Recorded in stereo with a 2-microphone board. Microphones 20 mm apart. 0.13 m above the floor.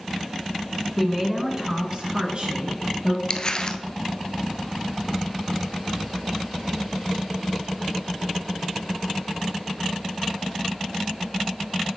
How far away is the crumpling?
About 0.6 m.